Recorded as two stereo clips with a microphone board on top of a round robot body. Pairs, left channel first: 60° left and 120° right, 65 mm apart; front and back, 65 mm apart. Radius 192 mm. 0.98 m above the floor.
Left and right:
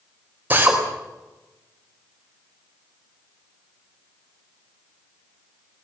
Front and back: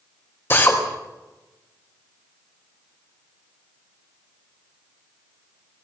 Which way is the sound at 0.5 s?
55° right.